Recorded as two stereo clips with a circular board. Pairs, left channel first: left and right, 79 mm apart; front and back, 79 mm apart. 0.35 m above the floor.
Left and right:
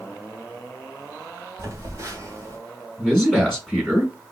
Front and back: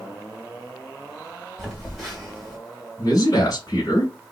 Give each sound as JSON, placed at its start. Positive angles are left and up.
{"t": 1.6, "sound": "a phone buzzing", "azimuth_deg": -90, "distance_m": 1.8}
{"t": 3.0, "sound": "a man speaking", "azimuth_deg": 0, "distance_m": 2.0}